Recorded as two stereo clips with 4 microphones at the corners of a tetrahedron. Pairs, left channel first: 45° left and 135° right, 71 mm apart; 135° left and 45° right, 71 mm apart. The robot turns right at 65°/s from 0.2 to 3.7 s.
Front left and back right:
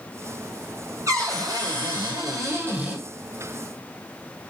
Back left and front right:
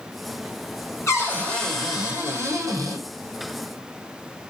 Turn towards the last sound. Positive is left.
turn(degrees=-10)